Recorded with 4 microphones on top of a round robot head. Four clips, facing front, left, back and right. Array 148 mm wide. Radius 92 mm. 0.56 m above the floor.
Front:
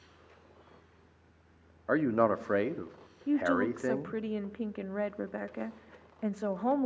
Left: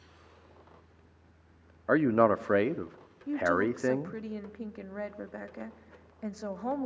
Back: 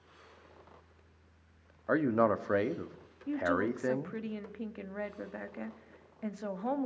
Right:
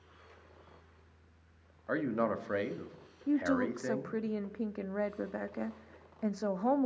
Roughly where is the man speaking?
Left.